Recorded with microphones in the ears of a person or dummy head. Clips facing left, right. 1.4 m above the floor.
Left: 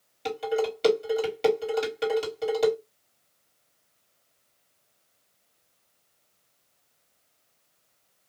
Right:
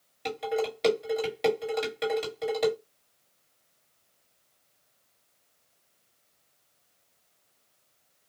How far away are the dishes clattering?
About 2 m.